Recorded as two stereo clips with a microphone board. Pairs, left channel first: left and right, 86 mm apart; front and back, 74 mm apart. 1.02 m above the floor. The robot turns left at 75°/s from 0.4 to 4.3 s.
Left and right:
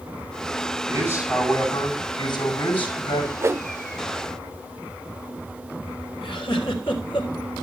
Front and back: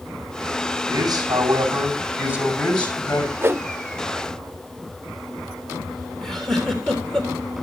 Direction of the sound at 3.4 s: 130° right.